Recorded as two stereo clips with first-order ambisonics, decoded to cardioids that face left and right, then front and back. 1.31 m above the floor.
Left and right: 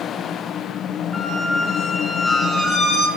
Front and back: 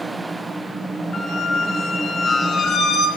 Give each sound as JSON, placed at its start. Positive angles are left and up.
{"t": 1.1, "sound": "a squeak", "azimuth_deg": 25, "distance_m": 0.9}